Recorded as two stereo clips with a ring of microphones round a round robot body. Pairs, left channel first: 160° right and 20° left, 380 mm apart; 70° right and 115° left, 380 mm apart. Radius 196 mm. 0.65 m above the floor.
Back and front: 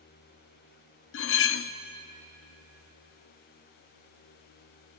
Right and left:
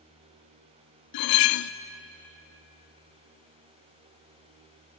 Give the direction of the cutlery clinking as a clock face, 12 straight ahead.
3 o'clock.